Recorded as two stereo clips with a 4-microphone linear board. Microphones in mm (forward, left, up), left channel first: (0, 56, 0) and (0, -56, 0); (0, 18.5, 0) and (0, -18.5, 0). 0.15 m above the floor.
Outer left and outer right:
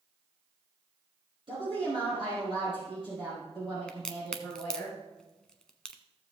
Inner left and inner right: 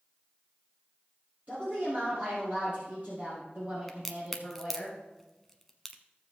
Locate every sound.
1.5 s a woman speaking: 50° right (ahead or behind), 4 m
3.9 s a crack: 5° left (ahead or behind), 0.9 m